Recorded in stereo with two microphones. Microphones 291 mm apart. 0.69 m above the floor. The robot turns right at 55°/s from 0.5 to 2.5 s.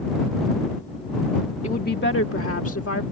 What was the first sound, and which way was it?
A woman speaking, 30° left.